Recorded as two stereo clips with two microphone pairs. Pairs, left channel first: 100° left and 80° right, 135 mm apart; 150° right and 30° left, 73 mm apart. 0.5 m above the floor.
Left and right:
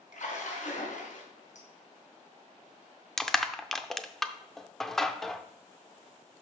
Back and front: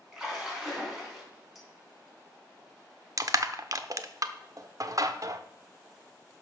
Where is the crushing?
10° left, 0.6 m.